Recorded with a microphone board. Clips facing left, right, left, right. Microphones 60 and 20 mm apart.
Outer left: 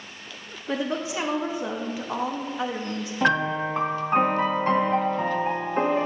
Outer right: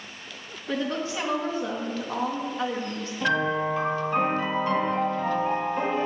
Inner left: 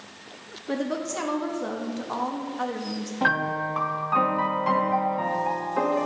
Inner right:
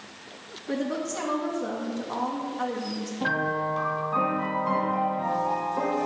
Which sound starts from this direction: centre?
A woman speaking, at 0.7 s.